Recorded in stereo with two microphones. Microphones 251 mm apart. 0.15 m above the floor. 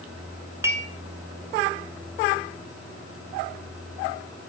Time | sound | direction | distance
0.6 | dishes clattering | 10° right (ahead or behind) | 1.2 m